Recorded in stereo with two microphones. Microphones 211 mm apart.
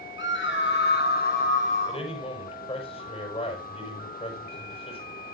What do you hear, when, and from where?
0.2 s a scream: 65° left (ahead or behind), 1.3 m; by 2.0 s 30° left (ahead or behind), 1.7 m
1.9 s a man speaking: 30° left (ahead or behind), 6 m